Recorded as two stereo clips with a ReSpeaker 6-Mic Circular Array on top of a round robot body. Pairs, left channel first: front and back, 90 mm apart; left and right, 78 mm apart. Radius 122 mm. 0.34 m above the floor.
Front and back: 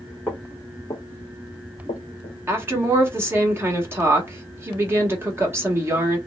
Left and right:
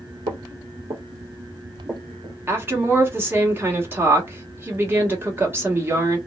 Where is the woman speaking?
135° right, 1.5 m.